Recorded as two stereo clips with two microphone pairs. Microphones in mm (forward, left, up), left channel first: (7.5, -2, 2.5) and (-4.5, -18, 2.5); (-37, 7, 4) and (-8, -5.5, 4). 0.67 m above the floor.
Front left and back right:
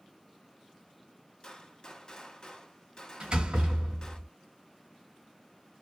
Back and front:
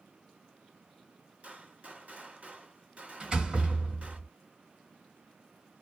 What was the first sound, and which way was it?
A gunshot, 10° left.